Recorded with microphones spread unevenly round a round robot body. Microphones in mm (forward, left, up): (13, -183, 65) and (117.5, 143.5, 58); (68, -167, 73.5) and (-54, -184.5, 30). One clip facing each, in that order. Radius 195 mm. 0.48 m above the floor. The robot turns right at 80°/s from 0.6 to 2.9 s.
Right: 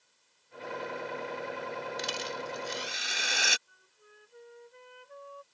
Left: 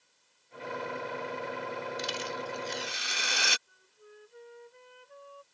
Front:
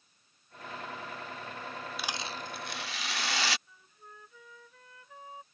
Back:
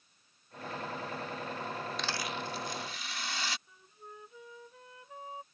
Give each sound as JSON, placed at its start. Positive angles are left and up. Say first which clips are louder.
{"t": 2.0, "sound": "a rattle", "louder": "left 1 dB, back 2 dB", "azimuth_deg": -90}
{"t": 3.7, "sound": "a flute", "louder": "left 6 dB, back 3 dB", "azimuth_deg": -105}